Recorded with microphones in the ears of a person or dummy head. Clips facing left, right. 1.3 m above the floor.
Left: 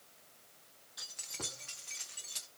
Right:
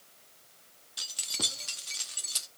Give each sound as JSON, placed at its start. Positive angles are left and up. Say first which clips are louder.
{"t": 1.0, "sound": "keys jangling", "louder": "right 6 dB", "side_deg": -40, "distance_m": 1.4}